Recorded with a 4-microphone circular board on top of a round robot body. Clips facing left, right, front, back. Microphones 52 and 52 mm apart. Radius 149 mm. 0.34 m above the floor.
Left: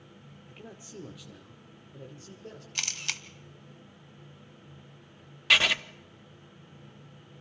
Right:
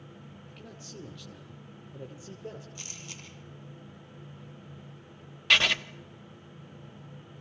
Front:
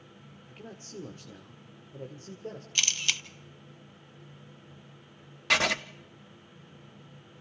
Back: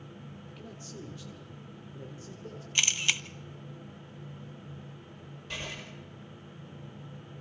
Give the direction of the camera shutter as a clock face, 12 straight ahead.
8 o'clock.